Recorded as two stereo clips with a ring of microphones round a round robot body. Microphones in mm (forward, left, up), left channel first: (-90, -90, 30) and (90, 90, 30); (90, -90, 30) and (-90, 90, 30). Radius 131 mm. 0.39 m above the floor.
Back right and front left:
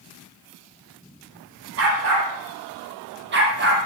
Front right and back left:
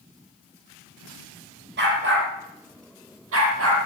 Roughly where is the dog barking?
Left.